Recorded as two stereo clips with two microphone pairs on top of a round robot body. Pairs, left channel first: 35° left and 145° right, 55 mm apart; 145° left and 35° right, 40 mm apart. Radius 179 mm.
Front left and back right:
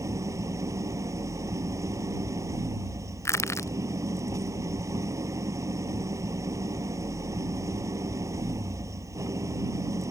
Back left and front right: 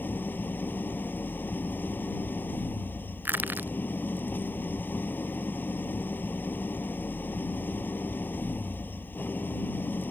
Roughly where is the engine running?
Behind.